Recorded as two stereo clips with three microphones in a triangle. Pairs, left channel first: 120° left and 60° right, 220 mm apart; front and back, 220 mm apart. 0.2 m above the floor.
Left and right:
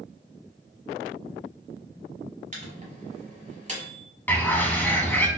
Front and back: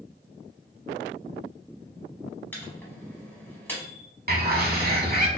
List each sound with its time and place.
2.5 s a microwave: 75° right, 0.9 m
4.3 s a bird: 160° right, 0.6 m